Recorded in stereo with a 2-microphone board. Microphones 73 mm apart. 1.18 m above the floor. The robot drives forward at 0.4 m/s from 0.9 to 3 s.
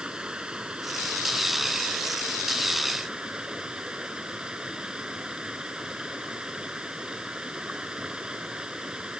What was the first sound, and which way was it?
Running water, 15° right (ahead or behind).